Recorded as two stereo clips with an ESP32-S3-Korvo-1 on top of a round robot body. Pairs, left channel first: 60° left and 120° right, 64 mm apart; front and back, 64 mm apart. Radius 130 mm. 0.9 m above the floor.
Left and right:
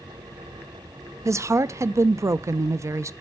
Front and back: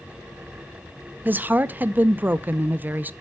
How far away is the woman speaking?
About 0.5 m.